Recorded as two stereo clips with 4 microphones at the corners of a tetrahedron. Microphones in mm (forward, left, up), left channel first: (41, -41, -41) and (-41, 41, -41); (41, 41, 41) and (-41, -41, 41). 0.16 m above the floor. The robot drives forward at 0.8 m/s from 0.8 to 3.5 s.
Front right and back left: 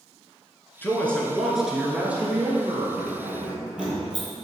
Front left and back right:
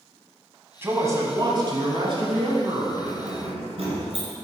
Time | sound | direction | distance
0.8 | a man speaking | 95° right | 1.2 m
3.0 | keys jangling | 135° right | 2.0 m